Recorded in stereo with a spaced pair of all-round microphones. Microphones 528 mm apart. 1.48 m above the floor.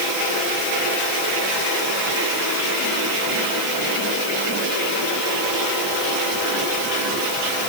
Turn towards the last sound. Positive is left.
No sound to turn to.